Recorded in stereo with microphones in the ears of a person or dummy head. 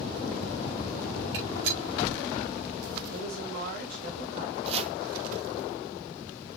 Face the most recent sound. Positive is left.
turn(degrees=-35)  # may be behind; listen again after turning